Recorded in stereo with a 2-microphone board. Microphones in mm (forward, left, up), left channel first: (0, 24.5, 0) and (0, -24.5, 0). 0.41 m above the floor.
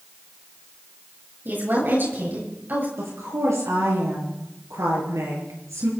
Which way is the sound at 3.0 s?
80° right.